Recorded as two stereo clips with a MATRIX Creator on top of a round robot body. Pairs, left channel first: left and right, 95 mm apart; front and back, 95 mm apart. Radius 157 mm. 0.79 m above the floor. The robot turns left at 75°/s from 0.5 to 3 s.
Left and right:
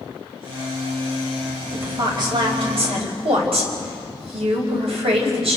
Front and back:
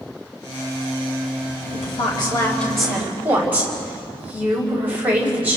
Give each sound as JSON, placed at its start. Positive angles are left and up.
{"t": 1.7, "sound": "a woman speaking", "azimuth_deg": -10, "distance_m": 5.0}